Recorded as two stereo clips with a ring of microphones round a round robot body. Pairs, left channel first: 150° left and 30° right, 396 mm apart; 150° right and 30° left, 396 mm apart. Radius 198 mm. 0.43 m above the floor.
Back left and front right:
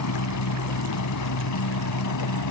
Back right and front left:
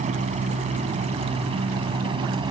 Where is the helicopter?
100° left; by 2.5 s 110° left.